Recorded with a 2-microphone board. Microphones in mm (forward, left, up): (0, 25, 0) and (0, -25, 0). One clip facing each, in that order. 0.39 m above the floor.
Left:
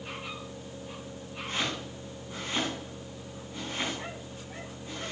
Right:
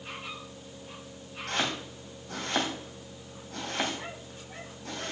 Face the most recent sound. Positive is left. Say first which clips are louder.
# right 2 dB
turn(degrees=-80)